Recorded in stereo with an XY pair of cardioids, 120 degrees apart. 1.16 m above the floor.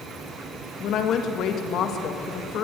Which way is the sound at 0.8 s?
70° left.